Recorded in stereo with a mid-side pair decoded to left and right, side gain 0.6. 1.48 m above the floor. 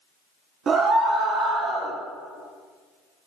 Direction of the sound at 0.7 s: 40° right.